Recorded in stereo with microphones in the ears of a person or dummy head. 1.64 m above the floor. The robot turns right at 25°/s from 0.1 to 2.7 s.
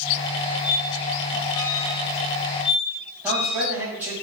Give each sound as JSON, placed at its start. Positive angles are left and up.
{"t": 0.6, "sound": "a squeak", "side_deg": 5, "distance_m": 1.0}
{"t": 3.2, "sound": "a man speaking", "side_deg": -10, "distance_m": 2.5}